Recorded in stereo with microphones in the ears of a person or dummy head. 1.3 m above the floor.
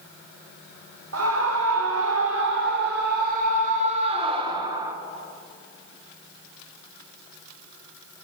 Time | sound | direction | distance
1.1 | a scream | 75° right (ahead or behind) | 1.9 m